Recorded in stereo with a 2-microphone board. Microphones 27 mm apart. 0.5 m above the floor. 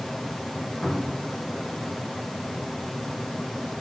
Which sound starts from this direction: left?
A cupboard door, at 0.8 s.